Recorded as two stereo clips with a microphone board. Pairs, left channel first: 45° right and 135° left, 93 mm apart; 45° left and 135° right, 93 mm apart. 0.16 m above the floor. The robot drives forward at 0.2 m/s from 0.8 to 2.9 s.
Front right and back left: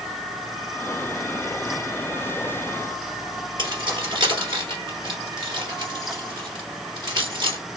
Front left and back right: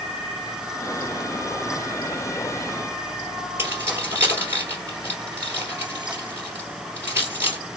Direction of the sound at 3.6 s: 160° left.